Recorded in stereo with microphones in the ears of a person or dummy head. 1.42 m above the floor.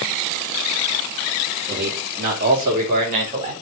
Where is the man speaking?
55° right (ahead or behind), 3.5 m; by 3.5 s 35° right (ahead or behind), 5 m.